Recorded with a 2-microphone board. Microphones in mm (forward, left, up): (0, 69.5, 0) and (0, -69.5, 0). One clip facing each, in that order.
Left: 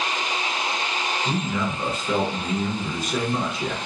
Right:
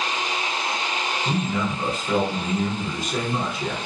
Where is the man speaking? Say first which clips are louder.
Right 2 dB; 5° left (ahead or behind), 1.1 m.